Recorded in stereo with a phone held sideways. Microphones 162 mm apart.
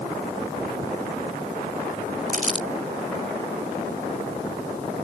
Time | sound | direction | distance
2.3 | crumpling | 55° right (ahead or behind) | ?